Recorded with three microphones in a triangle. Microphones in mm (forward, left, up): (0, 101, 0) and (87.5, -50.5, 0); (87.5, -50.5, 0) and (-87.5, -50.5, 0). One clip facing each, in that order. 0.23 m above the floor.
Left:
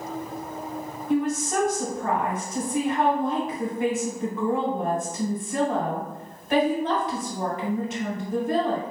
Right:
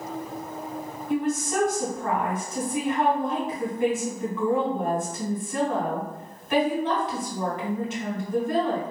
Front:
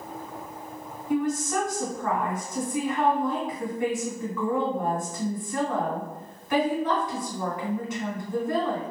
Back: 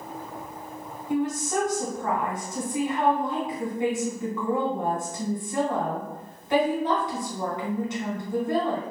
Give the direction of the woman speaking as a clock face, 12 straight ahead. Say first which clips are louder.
Left 2 dB, even; 7 o'clock.